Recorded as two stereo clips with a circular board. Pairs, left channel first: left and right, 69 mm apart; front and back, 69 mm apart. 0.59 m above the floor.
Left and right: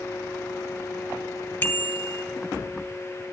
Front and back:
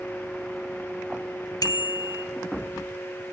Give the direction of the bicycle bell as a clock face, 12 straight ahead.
11 o'clock.